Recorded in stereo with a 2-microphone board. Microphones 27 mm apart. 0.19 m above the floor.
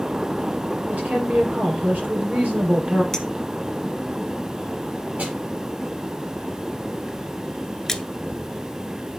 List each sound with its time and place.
0.9 s a woman speaking: 70° right (ahead or behind), 4 m
3.1 s a clink: 15° left (ahead or behind), 1.3 m
5.2 s a snare drum: 70° right (ahead or behind), 4 m
7.9 s a splash: 15° left (ahead or behind), 0.6 m